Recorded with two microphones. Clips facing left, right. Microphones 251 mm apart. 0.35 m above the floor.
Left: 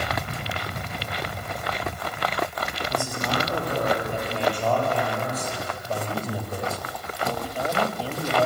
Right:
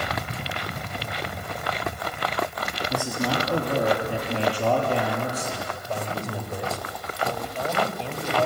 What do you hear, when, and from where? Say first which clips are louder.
2.9 s a man speaking: right 3 dB; 70° right (ahead or behind), 6.5 m; by 5.7 s 75° right (ahead or behind), 8 m
5.9 s a man speaking: left 2 dB; 5° left (ahead or behind), 2.0 m